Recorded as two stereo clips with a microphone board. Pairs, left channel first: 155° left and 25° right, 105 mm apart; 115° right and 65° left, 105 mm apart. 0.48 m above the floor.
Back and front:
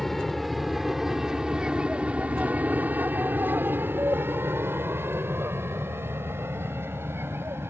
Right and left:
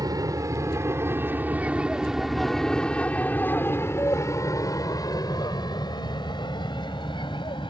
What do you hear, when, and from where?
0.0 s an aircraft: 70° left; by 7.7 s 85° right